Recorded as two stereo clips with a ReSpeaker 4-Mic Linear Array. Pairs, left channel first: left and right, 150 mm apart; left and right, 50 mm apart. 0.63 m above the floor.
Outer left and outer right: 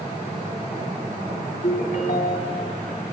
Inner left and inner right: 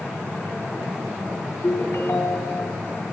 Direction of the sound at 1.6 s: 65° left (ahead or behind).